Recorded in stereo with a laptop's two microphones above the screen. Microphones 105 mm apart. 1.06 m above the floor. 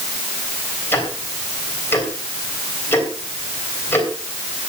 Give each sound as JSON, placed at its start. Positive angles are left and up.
{"t": 0.9, "sound": "ticking", "side_deg": 20, "distance_m": 3.5}